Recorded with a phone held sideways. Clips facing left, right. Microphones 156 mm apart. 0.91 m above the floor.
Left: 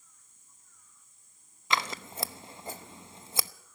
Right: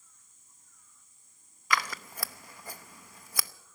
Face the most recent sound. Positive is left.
turn(degrees=25)  # may be behind; listen again after turning